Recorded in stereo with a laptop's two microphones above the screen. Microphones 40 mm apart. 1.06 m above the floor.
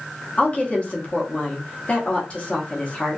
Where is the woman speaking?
30° left (ahead or behind), 0.9 m.